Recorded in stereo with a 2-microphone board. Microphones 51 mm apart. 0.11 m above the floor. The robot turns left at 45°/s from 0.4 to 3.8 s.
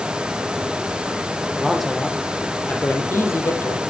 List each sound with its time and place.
1.6 s a man speaking: 170° right, 3.5 m; by 3.8 s 90° left, 3.5 m